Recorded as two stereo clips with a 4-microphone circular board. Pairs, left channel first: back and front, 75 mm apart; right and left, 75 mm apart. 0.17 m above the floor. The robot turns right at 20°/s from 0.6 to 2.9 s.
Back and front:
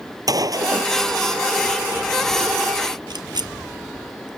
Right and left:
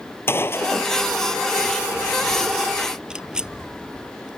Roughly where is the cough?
I don't hear a cough.